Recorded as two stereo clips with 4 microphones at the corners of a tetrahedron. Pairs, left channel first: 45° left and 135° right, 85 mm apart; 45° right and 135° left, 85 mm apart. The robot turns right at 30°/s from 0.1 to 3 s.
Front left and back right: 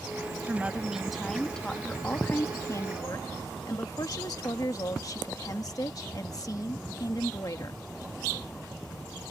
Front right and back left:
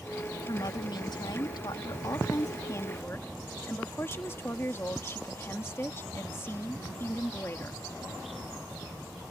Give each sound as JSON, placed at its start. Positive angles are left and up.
{"t": 0.5, "sound": "a woman speaking", "azimuth_deg": -65}